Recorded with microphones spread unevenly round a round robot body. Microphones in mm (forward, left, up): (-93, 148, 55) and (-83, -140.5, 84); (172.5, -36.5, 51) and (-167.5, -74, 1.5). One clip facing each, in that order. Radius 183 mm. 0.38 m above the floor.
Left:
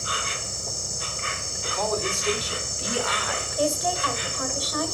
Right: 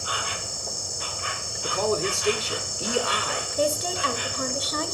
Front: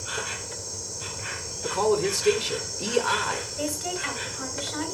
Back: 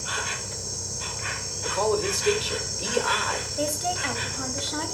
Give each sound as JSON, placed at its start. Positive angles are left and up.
{"t": 0.0, "sound": "an insect", "azimuth_deg": 160, "distance_m": 0.9}
{"t": 1.6, "sound": "a man speaking", "azimuth_deg": -40, "distance_m": 1.5}
{"t": 3.6, "sound": "a woman speaking", "azimuth_deg": -150, "distance_m": 1.9}